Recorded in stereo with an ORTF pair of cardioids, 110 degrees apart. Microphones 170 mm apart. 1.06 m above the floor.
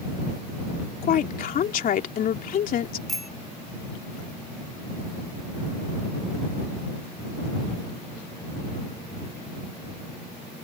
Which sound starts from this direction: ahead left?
A woman speaking, at 1.0 s.